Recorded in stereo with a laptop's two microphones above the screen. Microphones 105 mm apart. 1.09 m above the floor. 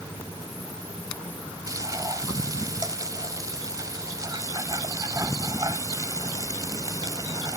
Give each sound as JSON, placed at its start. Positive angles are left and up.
{"t": 1.7, "sound": "frying", "side_deg": -35}